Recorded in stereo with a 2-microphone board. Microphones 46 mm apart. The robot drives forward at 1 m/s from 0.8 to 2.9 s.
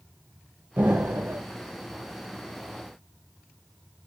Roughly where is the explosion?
Right.